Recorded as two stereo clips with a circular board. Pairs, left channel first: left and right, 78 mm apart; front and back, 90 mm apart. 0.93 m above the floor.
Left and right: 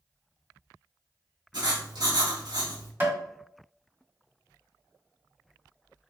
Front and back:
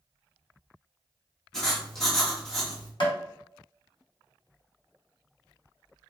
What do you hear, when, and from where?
1.5 s writing: 85° right, 1.6 m
3.0 s tapping: 30° right, 1.6 m